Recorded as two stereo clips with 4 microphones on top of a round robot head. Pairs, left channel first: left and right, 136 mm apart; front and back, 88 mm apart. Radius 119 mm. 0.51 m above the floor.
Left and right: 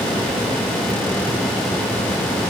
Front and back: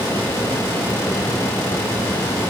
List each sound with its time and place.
Only background noise.